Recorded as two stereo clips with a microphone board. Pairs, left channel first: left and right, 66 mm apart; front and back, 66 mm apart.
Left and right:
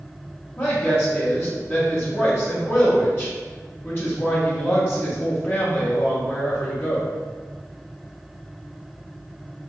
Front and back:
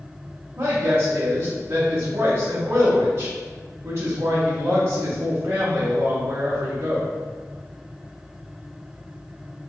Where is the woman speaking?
135° left, 0.9 m.